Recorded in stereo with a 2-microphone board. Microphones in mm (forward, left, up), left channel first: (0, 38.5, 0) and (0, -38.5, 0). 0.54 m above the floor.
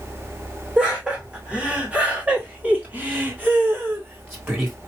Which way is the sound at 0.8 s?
10° right (ahead or behind).